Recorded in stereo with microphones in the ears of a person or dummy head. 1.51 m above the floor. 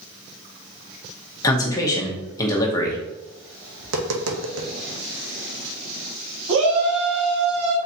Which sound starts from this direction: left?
A man speaking, at 1.4 s.